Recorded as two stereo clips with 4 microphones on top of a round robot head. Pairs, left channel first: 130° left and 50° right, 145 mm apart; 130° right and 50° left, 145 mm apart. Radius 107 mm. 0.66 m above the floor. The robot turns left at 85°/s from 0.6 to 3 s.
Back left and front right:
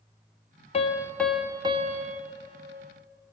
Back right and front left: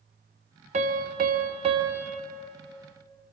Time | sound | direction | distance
0.7 | a piano | 85° left | 1.7 m